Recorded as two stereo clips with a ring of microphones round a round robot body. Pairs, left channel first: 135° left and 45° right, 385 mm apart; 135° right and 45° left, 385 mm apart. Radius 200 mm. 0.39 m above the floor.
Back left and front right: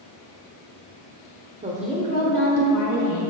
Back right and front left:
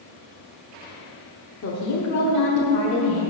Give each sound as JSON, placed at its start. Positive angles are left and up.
{"t": 1.6, "sound": "a woman speaking", "azimuth_deg": -105, "distance_m": 1.0}